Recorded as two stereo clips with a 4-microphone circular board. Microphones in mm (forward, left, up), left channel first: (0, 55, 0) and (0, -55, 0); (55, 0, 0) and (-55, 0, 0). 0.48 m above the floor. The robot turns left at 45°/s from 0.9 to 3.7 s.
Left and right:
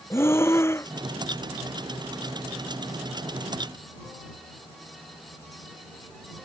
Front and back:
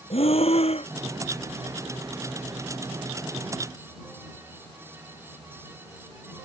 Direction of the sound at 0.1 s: 25° left.